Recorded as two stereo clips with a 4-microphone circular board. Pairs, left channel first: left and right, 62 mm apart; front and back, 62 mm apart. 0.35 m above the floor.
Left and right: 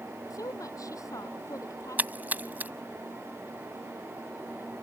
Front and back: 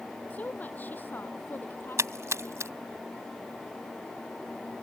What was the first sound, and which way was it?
A woman speaking, 65° left.